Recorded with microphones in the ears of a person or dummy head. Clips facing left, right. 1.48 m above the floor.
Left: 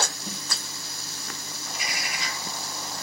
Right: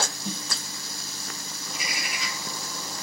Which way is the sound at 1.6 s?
15° right (ahead or behind).